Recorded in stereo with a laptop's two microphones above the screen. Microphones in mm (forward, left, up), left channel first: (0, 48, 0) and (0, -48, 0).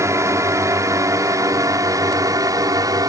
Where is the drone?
30° right (ahead or behind); by 3.1 s 40° right (ahead or behind).